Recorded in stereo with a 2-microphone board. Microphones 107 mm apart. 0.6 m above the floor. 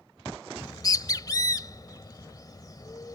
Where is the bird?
35° left (ahead or behind).